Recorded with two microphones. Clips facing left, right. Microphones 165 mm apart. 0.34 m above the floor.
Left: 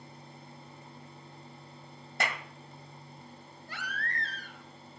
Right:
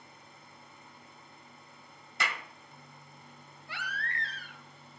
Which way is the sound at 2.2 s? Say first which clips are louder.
Left 3 dB; 50° left (ahead or behind).